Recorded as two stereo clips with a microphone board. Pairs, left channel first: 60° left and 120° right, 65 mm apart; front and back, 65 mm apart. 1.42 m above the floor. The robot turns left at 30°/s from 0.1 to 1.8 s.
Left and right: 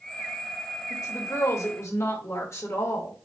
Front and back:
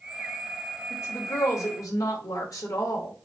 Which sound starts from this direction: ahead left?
A woman speaking, at 0.9 s.